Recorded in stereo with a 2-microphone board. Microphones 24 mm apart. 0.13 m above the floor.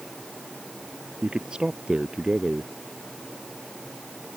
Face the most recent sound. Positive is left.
turn(degrees=-40)  # may be behind; listen again after turning